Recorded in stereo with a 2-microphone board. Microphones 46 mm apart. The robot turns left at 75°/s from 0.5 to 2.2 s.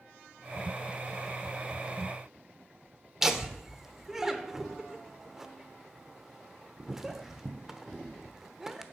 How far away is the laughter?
About 0.9 m.